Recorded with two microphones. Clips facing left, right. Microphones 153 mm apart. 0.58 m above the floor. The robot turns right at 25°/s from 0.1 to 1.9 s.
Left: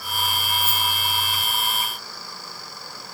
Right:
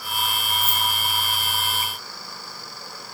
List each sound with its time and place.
0.6 s keys jangling: 5° right (ahead or behind), 1.8 m; by 0.8 s centre (ahead or behind), 1.8 m